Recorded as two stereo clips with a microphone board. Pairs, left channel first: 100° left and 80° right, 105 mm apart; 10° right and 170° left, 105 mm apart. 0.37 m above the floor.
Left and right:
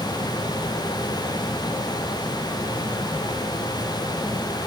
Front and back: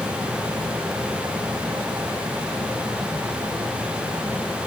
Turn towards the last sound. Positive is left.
No sound to turn to.